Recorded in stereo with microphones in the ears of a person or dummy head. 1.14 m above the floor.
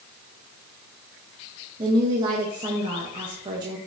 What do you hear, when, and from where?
1.8 s a woman speaking: 20° right (ahead or behind), 0.7 m